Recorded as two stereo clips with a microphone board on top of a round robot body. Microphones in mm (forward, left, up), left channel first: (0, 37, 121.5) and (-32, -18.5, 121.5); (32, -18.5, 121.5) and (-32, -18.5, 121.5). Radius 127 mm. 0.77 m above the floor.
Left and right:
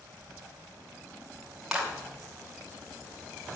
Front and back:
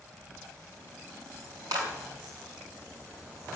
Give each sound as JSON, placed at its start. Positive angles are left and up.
{"t": 1.7, "sound": "a clap", "azimuth_deg": 155, "distance_m": 5.5}